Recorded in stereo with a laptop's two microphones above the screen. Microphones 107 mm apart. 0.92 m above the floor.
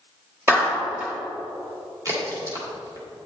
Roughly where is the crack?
Right.